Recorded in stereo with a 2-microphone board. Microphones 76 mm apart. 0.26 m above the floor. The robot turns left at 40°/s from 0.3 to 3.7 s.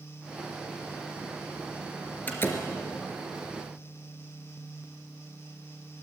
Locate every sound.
2.3 s a door slam: 25° left (ahead or behind), 3 m; by 2.7 s 40° left (ahead or behind), 3 m